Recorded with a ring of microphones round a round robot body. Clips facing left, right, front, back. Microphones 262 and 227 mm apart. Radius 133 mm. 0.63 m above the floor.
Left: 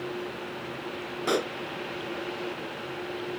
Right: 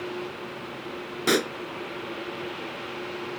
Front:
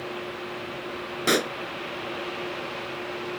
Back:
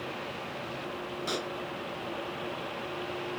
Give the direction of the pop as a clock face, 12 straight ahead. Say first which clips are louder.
Right 4 dB, front 13 dB; 1 o'clock.